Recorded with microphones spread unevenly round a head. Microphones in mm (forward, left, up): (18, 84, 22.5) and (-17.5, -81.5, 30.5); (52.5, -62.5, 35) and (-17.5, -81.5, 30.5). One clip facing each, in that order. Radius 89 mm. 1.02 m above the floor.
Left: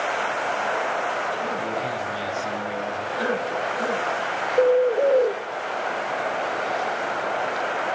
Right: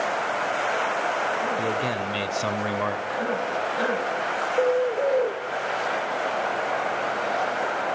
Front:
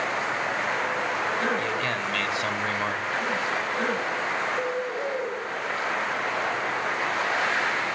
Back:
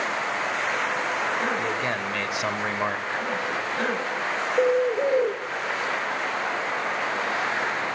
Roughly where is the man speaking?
Right.